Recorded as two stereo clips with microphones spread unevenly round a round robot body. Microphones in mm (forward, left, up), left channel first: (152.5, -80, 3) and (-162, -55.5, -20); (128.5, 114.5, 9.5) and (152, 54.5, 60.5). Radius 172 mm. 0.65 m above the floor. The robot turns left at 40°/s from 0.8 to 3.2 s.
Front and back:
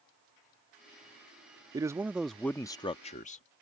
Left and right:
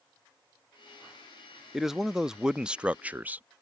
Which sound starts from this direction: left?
A man speaking, at 1.7 s.